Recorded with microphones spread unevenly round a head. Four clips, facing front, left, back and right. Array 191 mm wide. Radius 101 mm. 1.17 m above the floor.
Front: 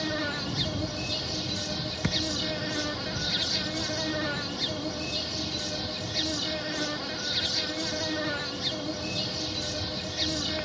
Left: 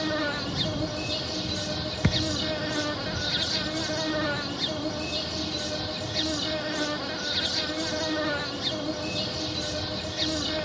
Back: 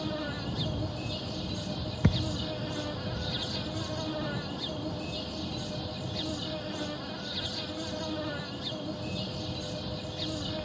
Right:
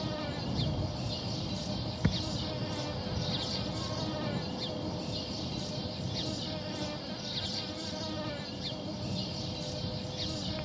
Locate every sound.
0.0 s an insect: 75° left
2.0 s a thud: 135° left